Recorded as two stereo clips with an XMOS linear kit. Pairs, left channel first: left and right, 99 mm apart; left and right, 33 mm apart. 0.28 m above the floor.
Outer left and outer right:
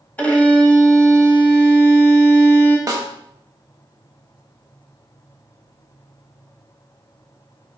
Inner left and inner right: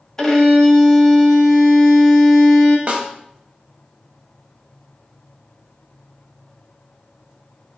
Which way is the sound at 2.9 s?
40° right (ahead or behind).